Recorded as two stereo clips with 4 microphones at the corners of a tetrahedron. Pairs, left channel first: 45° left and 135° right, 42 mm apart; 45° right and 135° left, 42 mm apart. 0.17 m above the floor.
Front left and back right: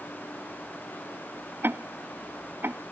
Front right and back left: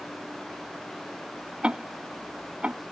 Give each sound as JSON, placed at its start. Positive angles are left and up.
{"t": 1.6, "sound": "ticking", "azimuth_deg": -165}